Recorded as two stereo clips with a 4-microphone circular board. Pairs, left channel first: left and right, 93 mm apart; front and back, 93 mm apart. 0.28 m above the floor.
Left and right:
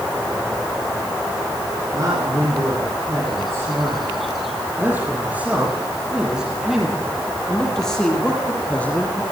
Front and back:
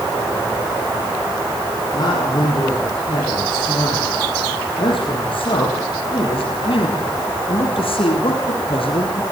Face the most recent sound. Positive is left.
turn(degrees=15)